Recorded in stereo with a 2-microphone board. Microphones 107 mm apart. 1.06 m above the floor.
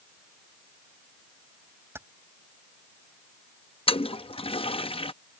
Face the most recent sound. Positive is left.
turn(degrees=60)  # may be behind; listen again after turning